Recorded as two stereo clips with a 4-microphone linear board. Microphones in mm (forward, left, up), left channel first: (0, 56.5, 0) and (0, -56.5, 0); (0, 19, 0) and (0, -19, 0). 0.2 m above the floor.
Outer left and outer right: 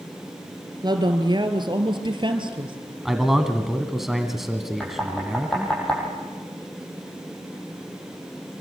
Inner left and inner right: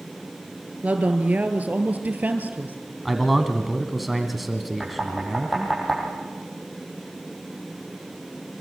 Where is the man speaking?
Centre (ahead or behind), 1.7 m.